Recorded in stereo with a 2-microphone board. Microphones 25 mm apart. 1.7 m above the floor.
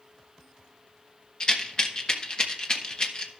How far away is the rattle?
About 1.1 m.